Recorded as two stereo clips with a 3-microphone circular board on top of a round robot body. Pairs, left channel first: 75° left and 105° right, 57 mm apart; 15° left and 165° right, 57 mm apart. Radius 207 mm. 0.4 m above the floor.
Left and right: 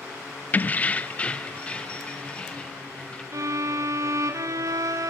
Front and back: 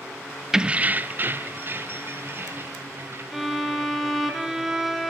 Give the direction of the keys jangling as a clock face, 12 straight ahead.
8 o'clock.